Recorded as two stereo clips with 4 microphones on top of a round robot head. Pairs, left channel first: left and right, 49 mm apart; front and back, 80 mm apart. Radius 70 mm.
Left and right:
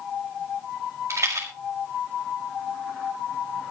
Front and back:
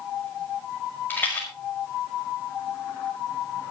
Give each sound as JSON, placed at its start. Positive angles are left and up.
{"t": 1.1, "sound": "a rattle", "azimuth_deg": -70, "distance_m": 5.5}